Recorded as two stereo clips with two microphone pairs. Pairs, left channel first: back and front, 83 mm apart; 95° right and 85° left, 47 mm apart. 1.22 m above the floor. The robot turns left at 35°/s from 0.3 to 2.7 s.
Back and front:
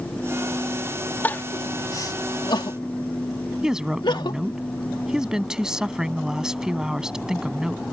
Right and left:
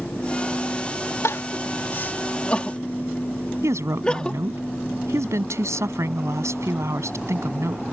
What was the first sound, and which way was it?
Crying, 110° right.